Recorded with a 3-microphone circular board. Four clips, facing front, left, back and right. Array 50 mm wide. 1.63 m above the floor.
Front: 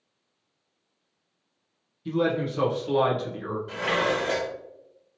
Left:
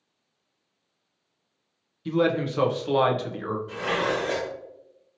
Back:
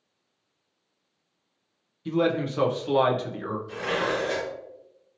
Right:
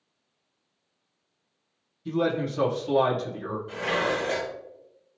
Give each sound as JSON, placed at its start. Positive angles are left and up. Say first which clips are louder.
{"t": 2.0, "sound": "a man speaking", "louder": "left 3 dB, back 1 dB", "azimuth_deg": 110, "distance_m": 0.7}
{"t": 3.7, "sound": "dishes clattering", "louder": "even, front 2 dB", "azimuth_deg": -5, "distance_m": 1.4}